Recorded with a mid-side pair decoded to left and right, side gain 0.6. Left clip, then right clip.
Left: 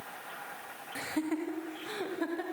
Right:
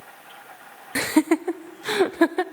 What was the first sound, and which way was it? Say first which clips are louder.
Laughter: right 14 dB; 65° right.